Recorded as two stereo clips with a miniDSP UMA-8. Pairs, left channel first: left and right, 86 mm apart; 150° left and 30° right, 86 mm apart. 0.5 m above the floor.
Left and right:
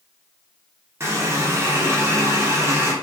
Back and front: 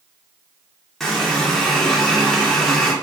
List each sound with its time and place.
1.0 s a running tap: 125° right, 0.6 m